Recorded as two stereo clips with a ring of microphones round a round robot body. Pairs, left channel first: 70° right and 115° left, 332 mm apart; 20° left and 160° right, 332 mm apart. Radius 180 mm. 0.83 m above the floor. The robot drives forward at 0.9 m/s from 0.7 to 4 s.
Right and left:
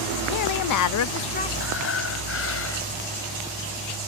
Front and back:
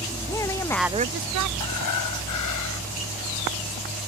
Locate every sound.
0.3 s a woman speaking: 60° right; by 1.5 s 140° right
1.6 s breathing: 15° right